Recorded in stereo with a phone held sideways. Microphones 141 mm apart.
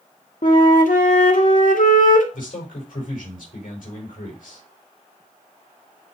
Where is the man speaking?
75° left (ahead or behind), 5 m.